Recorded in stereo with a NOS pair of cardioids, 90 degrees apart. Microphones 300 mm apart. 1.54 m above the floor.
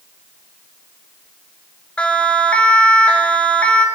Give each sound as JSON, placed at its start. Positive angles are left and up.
{"t": 2.0, "sound": "a siren", "azimuth_deg": 5, "distance_m": 6.5}